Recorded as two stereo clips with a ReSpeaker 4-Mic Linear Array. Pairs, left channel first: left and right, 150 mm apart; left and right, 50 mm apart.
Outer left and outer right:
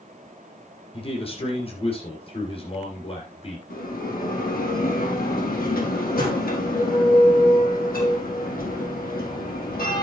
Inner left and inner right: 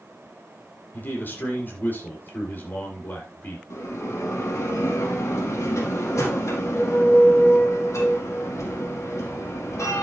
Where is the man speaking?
40° left (ahead or behind), 7.5 m.